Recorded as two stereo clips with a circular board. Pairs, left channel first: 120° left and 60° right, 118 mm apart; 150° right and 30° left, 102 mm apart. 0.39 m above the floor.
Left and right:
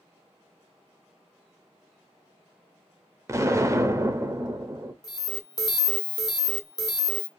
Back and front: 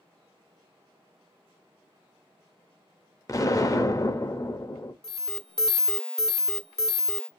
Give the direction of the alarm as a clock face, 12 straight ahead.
8 o'clock.